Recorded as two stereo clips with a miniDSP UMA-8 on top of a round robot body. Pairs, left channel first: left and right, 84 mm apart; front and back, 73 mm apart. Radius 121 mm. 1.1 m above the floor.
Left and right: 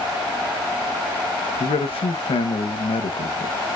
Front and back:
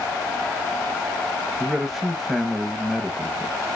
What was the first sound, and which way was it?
A man speaking, 95° left.